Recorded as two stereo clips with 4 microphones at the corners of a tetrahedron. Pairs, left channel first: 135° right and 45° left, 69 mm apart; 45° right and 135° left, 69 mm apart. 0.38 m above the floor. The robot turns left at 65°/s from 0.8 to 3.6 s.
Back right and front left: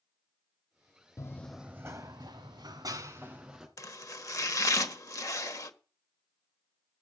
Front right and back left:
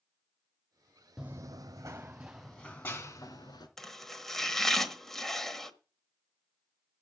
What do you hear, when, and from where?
1.2 s running footsteps: 145° right, 0.5 m; by 3.7 s 40° right, 3 m
3.8 s chopping: 125° right, 1.2 m